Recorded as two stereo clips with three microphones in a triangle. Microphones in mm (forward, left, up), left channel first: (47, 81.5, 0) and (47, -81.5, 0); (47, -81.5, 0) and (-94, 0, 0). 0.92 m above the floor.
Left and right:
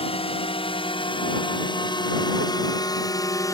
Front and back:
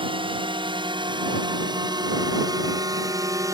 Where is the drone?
115° left; by 3.5 s 120° left.